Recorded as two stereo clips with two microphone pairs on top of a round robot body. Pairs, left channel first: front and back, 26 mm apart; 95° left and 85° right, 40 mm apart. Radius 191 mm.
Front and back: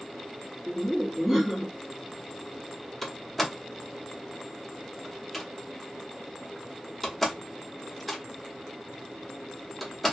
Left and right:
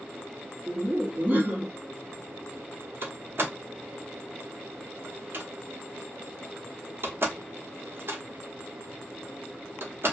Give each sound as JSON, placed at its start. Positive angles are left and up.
{"t": 0.7, "sound": "laughter", "azimuth_deg": -100, "distance_m": 1.8}
{"t": 3.0, "sound": "a door slam", "azimuth_deg": -80, "distance_m": 1.1}